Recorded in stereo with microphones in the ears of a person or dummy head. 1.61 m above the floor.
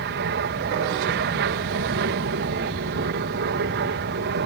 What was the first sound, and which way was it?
An aircraft, 60° right (ahead or behind).